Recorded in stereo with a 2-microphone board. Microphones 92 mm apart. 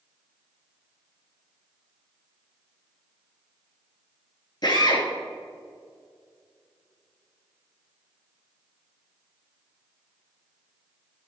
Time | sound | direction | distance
4.6 | a drill | 45° left (ahead or behind) | 2.5 m